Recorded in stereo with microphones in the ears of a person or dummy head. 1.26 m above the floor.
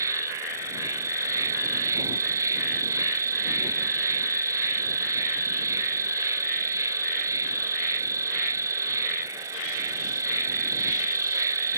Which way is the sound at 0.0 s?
15° right (ahead or behind).